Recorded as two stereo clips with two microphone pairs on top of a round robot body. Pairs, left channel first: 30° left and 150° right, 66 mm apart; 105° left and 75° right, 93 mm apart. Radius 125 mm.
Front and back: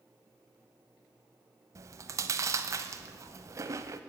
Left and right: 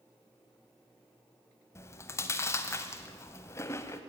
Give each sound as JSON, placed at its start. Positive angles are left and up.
{"t": 1.8, "sound": "chewing", "azimuth_deg": 170, "distance_m": 0.7}